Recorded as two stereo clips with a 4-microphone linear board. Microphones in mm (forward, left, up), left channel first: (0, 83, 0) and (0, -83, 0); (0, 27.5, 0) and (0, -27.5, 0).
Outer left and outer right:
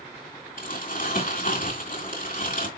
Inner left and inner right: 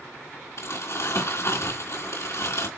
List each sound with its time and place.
0.6 s crumpling: 55° left (ahead or behind), 3 m